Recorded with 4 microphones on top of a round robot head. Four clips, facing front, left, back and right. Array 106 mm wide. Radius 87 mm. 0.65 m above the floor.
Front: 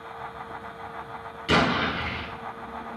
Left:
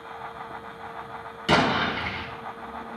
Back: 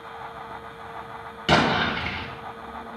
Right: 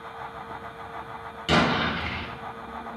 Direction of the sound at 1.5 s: 165° left.